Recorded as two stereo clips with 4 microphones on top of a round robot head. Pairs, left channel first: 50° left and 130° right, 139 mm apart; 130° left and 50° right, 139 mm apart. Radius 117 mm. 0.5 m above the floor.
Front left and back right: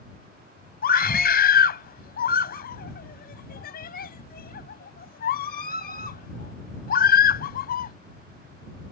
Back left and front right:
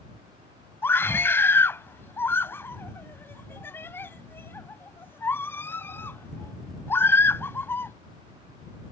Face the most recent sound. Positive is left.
turn(degrees=55)